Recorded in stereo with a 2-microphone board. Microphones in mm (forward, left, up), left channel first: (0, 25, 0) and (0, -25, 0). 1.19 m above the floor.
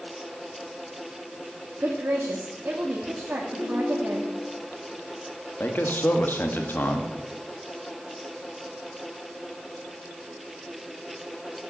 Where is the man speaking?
45° left (ahead or behind), 1.8 m.